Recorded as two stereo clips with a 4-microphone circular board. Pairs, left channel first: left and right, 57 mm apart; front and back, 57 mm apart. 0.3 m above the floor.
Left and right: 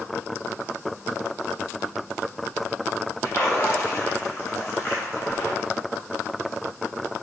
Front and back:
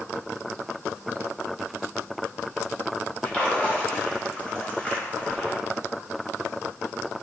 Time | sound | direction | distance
3.2 | a splash | 65° left | 0.9 m